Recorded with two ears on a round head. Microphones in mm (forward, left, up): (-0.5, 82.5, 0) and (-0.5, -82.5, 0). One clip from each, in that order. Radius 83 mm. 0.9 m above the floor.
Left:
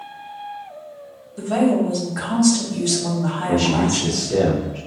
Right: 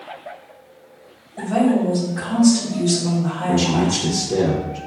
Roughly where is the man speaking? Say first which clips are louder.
Even; right.